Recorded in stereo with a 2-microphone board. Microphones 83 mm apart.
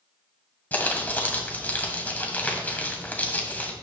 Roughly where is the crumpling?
Centre.